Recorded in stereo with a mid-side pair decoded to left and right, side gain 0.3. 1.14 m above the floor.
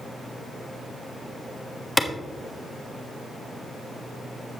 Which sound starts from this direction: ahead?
A clap, at 2.0 s.